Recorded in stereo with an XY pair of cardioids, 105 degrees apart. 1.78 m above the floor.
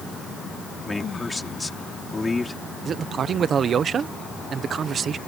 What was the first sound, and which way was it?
A man speaking, 20° left.